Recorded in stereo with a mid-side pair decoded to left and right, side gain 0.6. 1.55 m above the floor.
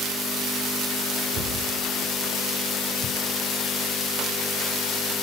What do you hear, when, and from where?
1.3 s a cupboard door: 65° right, 5.5 m